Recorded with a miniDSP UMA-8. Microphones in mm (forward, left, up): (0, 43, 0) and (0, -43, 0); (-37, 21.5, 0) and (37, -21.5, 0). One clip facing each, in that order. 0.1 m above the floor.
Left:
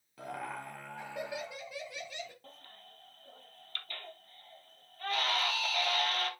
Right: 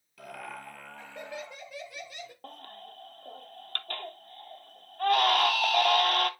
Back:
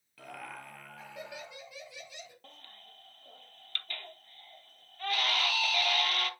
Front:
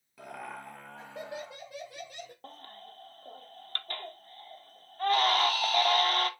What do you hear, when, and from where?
0.2 s laughter: 40° left, 1.8 m; by 2.3 s 15° right, 1.7 m
2.4 s a baby crying: 75° right, 0.8 m